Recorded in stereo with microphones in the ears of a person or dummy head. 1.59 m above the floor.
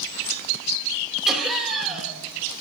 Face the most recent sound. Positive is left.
turn(degrees=0)  # may be behind; listen again after turning